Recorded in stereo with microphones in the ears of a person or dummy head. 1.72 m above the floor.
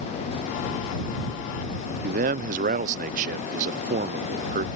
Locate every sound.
2.0 s a man speaking: 40° right (ahead or behind)